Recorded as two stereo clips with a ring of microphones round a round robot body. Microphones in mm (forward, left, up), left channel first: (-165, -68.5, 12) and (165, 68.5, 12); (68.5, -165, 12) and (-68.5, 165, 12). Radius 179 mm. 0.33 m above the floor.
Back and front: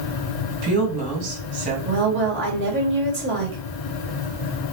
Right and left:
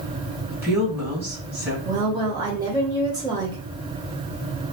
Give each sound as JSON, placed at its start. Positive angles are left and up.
{"t": 0.5, "sound": "a woman speaking", "azimuth_deg": 30, "distance_m": 2.5}
{"t": 1.9, "sound": "a woman speaking", "azimuth_deg": 45, "distance_m": 1.0}